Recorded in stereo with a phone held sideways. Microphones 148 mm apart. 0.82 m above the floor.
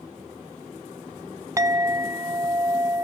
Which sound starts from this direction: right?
A clink, at 1.6 s.